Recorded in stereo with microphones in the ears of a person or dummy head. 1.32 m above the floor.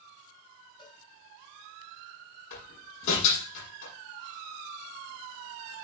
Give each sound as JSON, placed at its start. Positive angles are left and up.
{"t": 0.8, "sound": "a cowbell", "side_deg": 25, "distance_m": 5.5}
{"t": 2.5, "sound": "a door slam", "side_deg": 70, "distance_m": 8.0}